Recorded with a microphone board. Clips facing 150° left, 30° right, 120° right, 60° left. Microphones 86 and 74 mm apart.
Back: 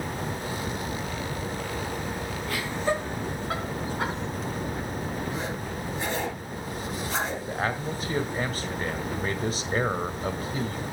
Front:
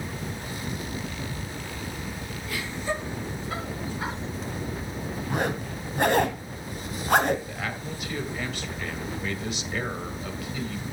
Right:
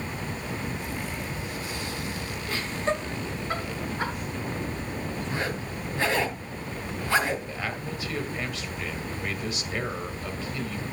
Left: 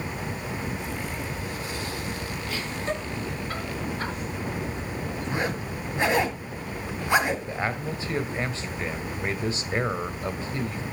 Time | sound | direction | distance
2.5 | laughter | 175° right | 5.5 m
5.3 | a zipper | 10° right | 1.9 m
7.5 | a man speaking | 110° left | 1.6 m